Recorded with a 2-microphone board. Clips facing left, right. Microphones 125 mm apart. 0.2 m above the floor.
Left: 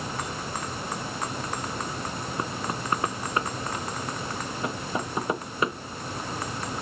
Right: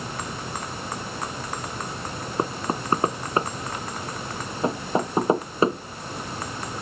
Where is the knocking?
30° right (ahead or behind).